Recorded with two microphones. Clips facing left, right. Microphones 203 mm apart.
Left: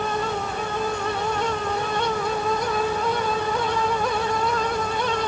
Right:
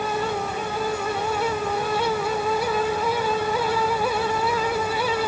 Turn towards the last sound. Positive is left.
No sound to turn to.